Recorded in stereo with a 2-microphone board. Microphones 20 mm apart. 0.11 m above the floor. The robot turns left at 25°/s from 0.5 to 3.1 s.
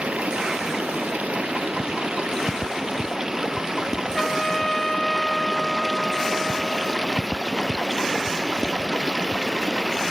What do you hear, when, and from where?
0.0 s running water: 80° right; by 10.1 s 145° right
4.2 s a trumpet: 20° left (ahead or behind)